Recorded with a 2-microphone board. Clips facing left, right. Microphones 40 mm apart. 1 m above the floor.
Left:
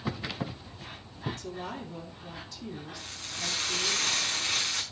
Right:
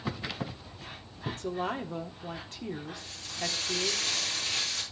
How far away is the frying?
About 4.5 m.